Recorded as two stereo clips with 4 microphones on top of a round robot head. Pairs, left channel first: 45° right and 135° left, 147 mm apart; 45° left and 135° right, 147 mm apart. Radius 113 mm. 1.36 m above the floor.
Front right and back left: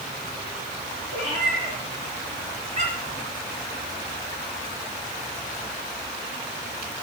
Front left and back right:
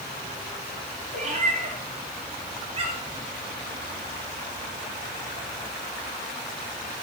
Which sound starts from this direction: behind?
A cat meowing, at 1.1 s.